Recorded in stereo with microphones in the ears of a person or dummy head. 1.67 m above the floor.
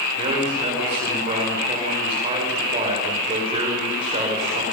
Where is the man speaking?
35° right (ahead or behind), 7 m.